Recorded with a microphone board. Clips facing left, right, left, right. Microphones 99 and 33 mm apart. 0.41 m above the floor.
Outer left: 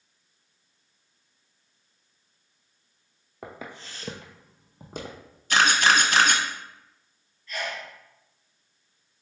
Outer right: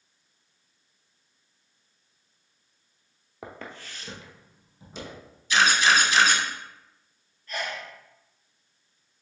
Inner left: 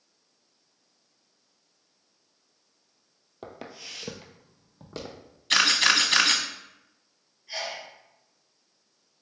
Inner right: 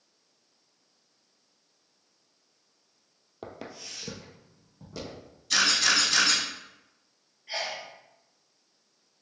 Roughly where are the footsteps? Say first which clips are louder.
Outer left 1 dB, even; centre.